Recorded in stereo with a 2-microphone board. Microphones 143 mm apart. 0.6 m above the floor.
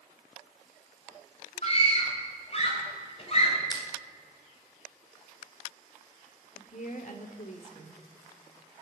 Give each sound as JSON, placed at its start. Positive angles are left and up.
{"t": 1.6, "sound": "a scream", "side_deg": 45, "distance_m": 3.5}
{"t": 3.7, "sound": "crushing", "side_deg": 30, "distance_m": 2.0}
{"t": 6.5, "sound": "a woman speaking", "side_deg": 60, "distance_m": 1.6}